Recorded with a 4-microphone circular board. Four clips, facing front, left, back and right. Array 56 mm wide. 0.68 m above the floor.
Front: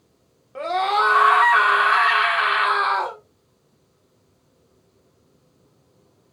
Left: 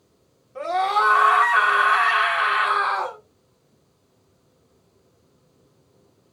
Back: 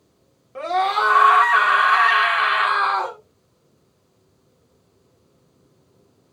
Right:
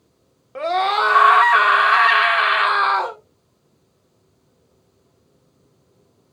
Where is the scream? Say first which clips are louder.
Right 2 dB, even; 85° right, 1.7 m.